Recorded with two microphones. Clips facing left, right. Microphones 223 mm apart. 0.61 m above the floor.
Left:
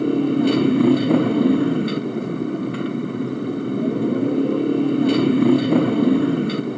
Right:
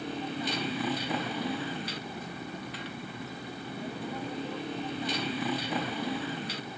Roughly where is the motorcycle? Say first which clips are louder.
Left 18 dB; left.